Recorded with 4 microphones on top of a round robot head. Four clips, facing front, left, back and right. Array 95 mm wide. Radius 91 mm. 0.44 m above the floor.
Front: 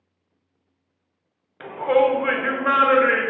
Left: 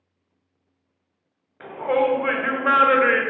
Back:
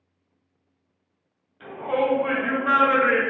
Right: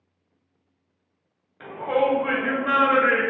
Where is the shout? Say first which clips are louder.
Left 1 dB, front 6 dB; 20° left, 1.4 m; by 3.2 s 65° left, 1.4 m.